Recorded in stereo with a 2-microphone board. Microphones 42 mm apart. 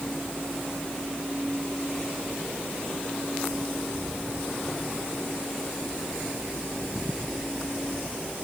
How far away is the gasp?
I don't hear a gasp.